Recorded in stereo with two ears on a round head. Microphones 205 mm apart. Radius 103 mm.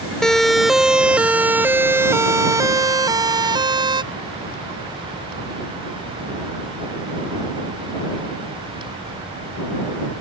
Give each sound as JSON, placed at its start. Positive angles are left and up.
{"t": 0.2, "sound": "a siren", "side_deg": 0}